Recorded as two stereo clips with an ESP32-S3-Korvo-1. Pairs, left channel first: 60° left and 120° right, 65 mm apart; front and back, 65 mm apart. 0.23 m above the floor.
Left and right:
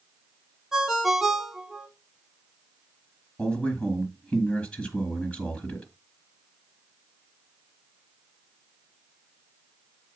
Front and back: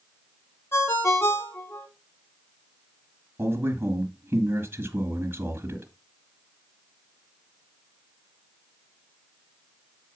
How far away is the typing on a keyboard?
No typing on a keyboard in this recording.